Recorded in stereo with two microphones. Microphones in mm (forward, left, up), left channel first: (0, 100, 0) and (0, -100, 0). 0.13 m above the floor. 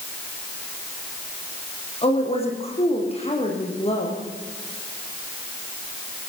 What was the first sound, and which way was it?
A woman speaking, 30° left (ahead or behind).